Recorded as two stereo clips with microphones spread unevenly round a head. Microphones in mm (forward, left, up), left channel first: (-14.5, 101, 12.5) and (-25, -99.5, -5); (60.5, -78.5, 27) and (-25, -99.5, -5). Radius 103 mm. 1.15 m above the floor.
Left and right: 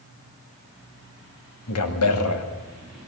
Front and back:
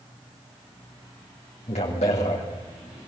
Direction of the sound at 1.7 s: 65° left.